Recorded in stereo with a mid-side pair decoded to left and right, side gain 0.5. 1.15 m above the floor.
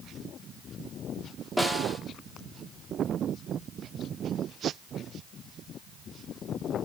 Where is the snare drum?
10° right, 1.6 m.